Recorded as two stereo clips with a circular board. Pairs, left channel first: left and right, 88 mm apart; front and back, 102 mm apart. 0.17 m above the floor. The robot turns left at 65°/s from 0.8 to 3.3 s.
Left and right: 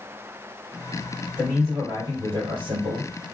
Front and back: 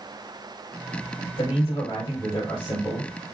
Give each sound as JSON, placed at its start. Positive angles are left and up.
{"t": 1.4, "sound": "a man speaking", "azimuth_deg": 10, "distance_m": 3.5}